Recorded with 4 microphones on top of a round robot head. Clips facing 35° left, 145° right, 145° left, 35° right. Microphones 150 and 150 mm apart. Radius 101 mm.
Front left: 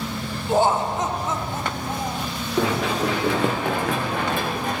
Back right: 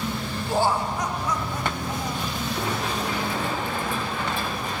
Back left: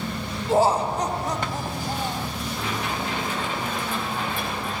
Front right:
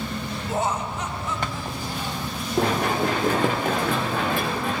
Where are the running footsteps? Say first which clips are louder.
Front left 9 dB, front right 9 dB; 10° left, 5 m; by 4.8 s 10° right, 4.5 m.